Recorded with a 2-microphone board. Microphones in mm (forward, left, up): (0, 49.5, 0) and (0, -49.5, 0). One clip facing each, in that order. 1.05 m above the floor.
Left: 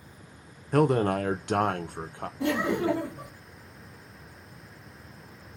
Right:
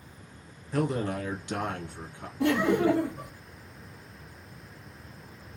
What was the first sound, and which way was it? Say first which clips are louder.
A man speaking: left 6 dB; 60° left (ahead or behind).